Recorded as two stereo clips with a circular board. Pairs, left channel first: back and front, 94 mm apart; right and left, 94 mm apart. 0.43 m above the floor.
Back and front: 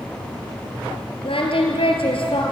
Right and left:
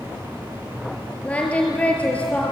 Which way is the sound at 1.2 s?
165° right.